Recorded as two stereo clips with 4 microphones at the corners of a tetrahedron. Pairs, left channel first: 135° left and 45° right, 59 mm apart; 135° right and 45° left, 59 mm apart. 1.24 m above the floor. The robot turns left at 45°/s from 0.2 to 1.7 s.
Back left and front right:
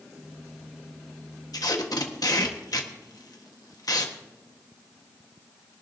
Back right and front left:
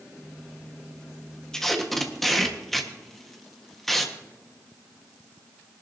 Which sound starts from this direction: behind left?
Tape being pulled, at 1.5 s.